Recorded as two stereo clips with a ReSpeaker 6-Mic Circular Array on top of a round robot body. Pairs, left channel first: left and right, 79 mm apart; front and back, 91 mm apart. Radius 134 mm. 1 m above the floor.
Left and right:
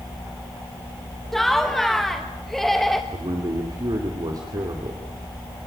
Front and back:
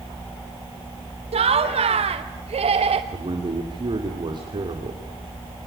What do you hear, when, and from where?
1.3 s laughter: 175° left, 1.0 m
3.1 s a man speaking: 140° right, 2.5 m